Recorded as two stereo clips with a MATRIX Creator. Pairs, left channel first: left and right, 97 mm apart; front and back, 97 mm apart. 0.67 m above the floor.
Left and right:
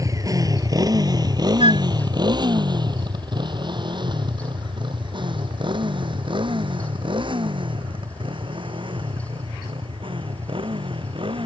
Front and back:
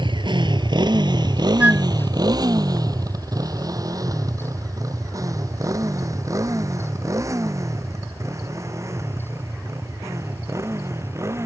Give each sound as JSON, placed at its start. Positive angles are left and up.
{"t": 0.0, "sound": "a motorcycle", "azimuth_deg": -145}
{"t": 1.6, "sound": "a flute", "azimuth_deg": -105}